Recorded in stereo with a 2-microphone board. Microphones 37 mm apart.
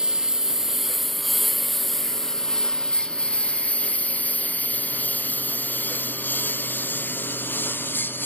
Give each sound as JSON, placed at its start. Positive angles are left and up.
{"t": 0.0, "sound": "a lawn mower", "side_deg": -20}